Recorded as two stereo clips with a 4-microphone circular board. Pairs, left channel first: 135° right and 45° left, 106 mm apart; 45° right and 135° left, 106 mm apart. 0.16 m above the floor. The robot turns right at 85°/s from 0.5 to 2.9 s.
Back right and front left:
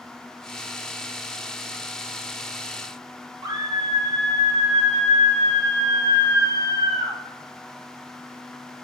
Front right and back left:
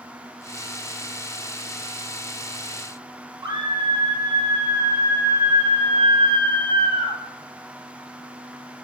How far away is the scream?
About 4 m.